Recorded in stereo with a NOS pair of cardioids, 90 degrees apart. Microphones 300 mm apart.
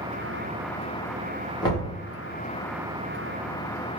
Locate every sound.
1.6 s knocking: 15° left, 1.6 m